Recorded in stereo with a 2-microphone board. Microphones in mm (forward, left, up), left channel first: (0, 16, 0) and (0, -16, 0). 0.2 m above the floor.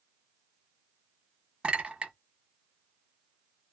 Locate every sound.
1.6 s a clink: 35° right (ahead or behind), 0.9 m